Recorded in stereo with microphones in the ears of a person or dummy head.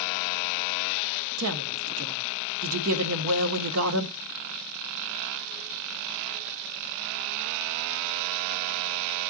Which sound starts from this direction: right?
A woman speaking, at 1.4 s.